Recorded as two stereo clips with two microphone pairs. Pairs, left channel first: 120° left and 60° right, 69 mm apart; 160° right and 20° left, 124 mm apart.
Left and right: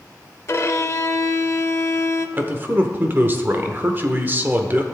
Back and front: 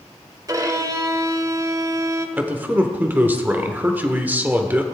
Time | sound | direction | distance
0.5 | a violin | 80° left | 0.6 m
2.4 | a man speaking | 45° right | 0.9 m